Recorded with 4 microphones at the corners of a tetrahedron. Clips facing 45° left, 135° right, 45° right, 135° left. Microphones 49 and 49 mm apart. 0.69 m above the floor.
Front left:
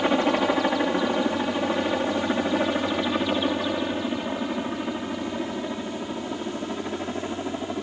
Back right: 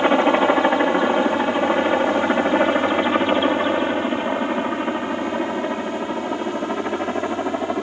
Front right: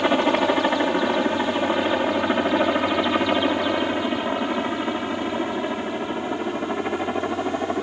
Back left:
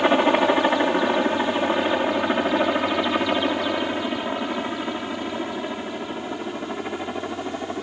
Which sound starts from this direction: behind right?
A helicopter, at 0.0 s.